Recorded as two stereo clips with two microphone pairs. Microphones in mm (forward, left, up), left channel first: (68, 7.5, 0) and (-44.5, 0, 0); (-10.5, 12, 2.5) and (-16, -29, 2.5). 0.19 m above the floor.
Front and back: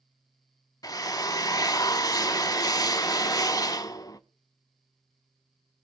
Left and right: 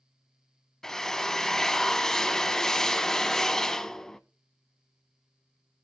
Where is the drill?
10° left, 0.6 m.